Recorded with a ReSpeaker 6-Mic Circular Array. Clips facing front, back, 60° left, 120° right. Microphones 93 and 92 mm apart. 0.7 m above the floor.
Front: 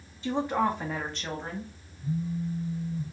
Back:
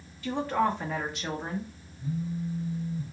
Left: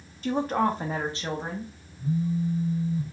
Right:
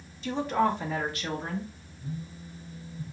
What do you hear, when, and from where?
0.2 s a woman speaking: 60° left, 1.1 m; by 1.7 s 130° left, 1.0 m
2.0 s a phone buzzing: 105° left, 1.4 m